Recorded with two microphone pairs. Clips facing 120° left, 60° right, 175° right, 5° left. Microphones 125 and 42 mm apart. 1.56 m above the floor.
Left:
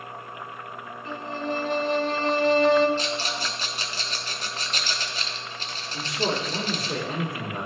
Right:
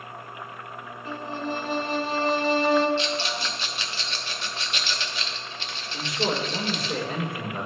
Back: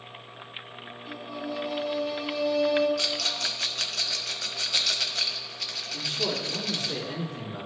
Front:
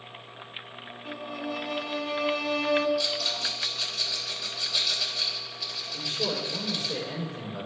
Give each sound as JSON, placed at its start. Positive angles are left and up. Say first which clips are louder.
{"t": 1.1, "sound": "a violin", "louder": "left 1 dB, front 1 dB", "azimuth_deg": 25, "distance_m": 0.7}
{"t": 3.0, "sound": "a rattle", "louder": "right 1 dB, even", "azimuth_deg": 170, "distance_m": 0.8}
{"t": 5.9, "sound": "a man speaking", "louder": "even, back 1 dB", "azimuth_deg": 165, "distance_m": 3.0}